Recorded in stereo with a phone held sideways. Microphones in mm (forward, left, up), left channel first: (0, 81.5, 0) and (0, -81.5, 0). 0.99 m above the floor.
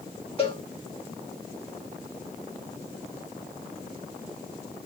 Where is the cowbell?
35° left (ahead or behind), 1.3 m.